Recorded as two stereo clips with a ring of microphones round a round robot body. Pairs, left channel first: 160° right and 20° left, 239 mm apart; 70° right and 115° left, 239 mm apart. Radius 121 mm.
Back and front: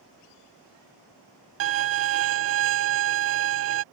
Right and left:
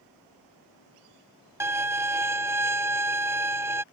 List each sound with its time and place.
1.6 s a violin: 35° left